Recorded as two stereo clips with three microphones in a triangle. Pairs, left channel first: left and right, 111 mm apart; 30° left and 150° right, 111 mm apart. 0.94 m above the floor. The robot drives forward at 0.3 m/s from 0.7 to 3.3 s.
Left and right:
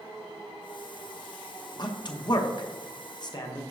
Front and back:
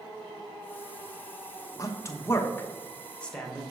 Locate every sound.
1.8 s a man speaking: 70° left, 1.0 m; by 3.6 s 105° left, 1.0 m